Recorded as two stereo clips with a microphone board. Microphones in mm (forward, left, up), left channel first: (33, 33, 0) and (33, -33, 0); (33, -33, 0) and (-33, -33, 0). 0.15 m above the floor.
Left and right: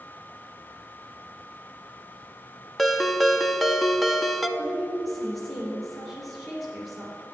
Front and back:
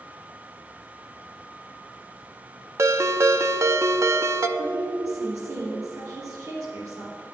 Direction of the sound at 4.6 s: Straight behind.